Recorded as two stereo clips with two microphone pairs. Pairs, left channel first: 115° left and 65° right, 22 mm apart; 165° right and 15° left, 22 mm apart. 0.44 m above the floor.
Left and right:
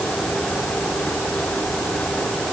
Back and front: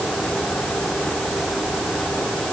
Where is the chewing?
No chewing in this recording.